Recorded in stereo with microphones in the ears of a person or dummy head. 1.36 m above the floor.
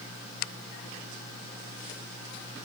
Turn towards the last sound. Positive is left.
No sound to turn to.